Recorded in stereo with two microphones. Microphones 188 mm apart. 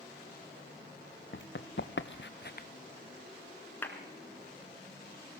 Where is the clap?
10° left (ahead or behind), 2.5 m.